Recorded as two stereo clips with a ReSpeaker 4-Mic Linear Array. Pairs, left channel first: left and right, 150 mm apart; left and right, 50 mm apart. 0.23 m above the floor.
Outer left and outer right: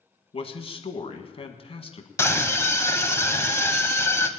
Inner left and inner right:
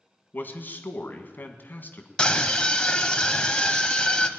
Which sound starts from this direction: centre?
A scream, at 2.2 s.